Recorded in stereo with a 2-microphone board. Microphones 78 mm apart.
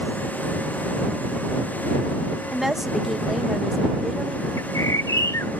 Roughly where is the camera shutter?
I don't hear a camera shutter.